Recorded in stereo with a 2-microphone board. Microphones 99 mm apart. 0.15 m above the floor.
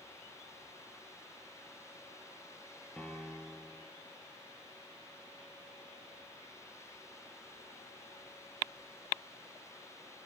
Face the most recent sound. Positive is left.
turn(degrees=10)  # may be behind; listen again after turning